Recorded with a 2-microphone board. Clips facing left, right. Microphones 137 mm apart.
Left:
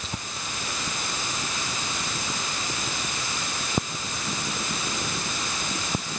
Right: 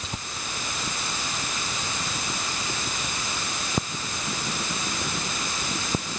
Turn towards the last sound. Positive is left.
No sound to turn to.